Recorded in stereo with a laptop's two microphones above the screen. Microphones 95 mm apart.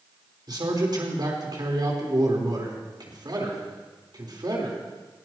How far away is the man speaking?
About 4 m.